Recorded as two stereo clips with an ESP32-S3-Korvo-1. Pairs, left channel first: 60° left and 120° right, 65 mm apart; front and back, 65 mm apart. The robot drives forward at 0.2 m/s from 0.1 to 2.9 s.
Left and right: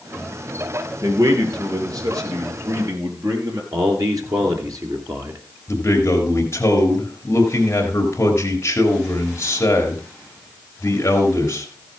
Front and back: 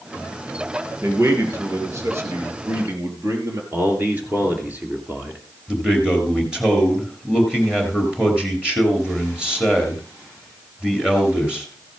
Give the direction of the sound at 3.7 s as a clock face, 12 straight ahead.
4 o'clock.